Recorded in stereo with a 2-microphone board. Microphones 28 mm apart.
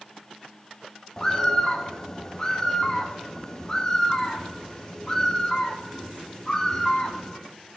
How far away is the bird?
About 0.9 m.